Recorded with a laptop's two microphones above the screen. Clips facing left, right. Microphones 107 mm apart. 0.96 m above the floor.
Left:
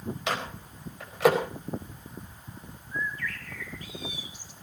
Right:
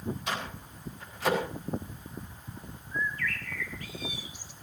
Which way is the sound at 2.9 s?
20° left (ahead or behind).